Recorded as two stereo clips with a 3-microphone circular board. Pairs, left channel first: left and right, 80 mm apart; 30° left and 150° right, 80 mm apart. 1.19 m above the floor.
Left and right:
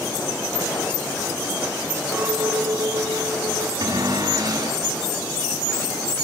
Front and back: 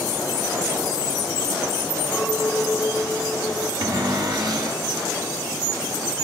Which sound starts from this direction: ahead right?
A clink, at 2.1 s.